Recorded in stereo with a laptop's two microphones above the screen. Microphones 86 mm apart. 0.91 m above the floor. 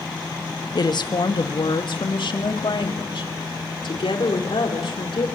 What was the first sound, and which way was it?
A woman speaking, 55° left (ahead or behind).